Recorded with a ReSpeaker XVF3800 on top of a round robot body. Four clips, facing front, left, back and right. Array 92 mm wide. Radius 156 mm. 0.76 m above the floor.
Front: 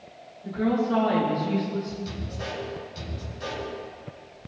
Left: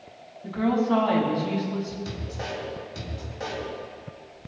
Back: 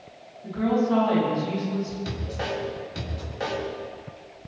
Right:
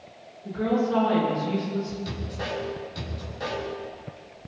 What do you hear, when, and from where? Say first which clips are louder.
0.4 s a woman speaking: left 1 dB, back 1 dB; 100° left, 7.5 m
2.0 s a man speaking: right 1 dB, back 4 dB; 165° left, 6.5 m